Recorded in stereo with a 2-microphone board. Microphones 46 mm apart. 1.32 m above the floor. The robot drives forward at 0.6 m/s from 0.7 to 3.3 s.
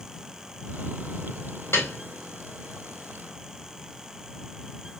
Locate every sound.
1.7 s a piano: 70° left (ahead or behind), 4 m